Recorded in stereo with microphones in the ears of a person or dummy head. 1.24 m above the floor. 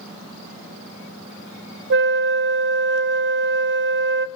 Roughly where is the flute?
Right.